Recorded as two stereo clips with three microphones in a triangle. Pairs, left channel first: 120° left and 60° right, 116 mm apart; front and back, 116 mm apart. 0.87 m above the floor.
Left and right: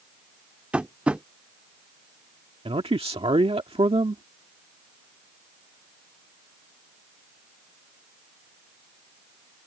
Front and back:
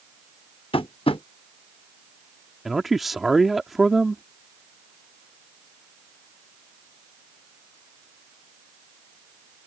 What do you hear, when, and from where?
0.7 s tapping: 20° left
2.6 s a man speaking: 90° right